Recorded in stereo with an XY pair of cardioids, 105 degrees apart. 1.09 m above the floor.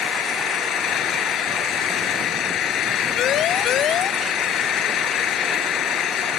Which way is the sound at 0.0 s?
70° left.